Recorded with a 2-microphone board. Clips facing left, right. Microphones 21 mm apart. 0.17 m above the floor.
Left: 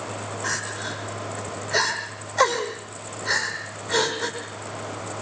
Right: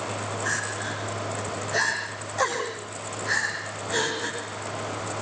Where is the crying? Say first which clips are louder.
Left 1 dB; 30° left (ahead or behind), 6 m.